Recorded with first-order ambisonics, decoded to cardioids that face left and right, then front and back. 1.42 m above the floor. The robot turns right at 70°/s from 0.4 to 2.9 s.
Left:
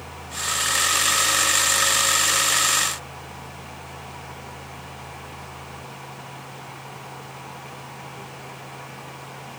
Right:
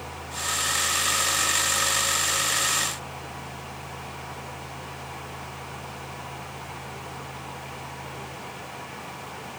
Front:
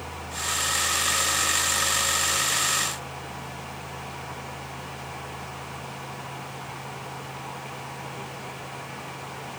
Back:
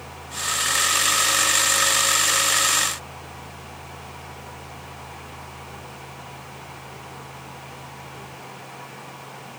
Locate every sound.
Only background noise.